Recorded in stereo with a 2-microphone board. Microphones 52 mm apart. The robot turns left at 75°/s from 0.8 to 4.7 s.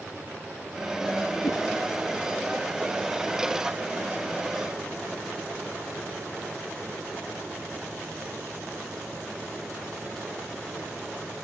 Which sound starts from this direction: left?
A whoosh, at 1.4 s.